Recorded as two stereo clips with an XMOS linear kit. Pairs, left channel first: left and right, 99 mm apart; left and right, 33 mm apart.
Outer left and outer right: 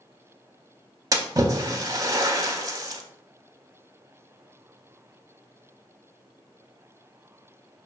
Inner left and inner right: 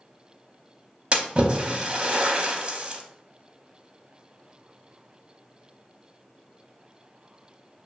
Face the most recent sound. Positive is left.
turn(degrees=-35)  # may be behind; listen again after turning